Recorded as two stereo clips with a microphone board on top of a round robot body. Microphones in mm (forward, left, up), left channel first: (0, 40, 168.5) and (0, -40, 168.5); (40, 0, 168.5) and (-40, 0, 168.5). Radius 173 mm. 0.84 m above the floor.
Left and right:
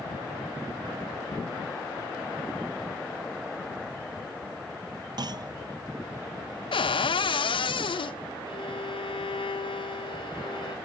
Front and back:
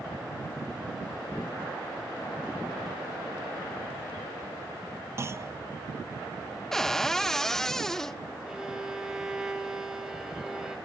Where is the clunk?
125° right, 0.7 m.